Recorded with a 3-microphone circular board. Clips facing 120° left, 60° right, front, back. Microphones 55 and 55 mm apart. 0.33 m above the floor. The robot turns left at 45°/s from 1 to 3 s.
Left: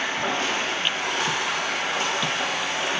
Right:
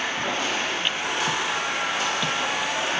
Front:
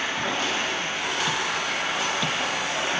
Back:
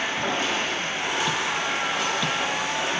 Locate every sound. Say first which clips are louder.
0.0 s running water: left 1 dB, back 1 dB; 125° left, 0.9 m; by 3.0 s 35° left, 0.9 m